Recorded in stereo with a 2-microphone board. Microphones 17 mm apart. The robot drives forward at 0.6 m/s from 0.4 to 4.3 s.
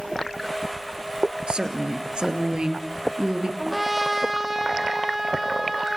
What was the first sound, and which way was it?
A woman speaking, 75° right (ahead or behind).